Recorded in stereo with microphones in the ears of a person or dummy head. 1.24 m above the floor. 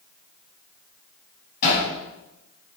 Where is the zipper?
I don't hear a zipper.